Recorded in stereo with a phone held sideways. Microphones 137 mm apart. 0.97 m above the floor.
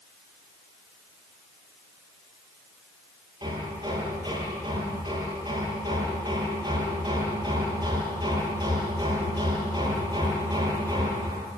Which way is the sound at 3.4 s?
35° right (ahead or behind).